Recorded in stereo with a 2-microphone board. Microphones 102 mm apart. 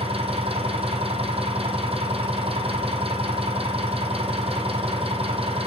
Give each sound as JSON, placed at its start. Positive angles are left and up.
{"t": 0.0, "sound": "an engine running", "side_deg": -70, "distance_m": 3.5}